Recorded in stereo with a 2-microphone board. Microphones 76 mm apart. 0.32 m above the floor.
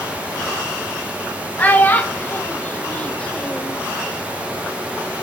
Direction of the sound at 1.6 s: 20° left (ahead or behind).